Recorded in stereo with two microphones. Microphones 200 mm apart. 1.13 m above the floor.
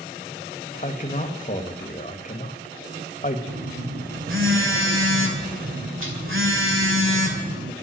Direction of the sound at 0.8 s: 40° left (ahead or behind).